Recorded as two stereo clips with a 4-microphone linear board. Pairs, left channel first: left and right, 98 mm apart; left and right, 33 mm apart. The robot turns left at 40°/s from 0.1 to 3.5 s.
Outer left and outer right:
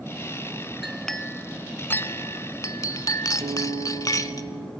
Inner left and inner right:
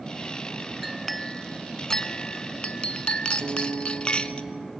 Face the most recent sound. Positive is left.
turn(degrees=-80)